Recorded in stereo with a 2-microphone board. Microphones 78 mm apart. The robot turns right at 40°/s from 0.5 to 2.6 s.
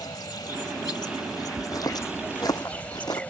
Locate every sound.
0.0 s an insect: 75° left; by 3.3 s 160° left
1.6 s footsteps: 60° left (ahead or behind); by 3.2 s 65° left (ahead or behind)